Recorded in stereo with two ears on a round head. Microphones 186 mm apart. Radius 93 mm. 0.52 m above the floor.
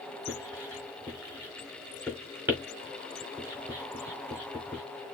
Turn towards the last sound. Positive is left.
turn(degrees=-10)  # may be behind; listen again after turning